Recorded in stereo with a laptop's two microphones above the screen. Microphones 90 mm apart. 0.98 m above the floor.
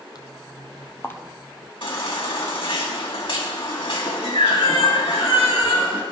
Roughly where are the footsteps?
Left.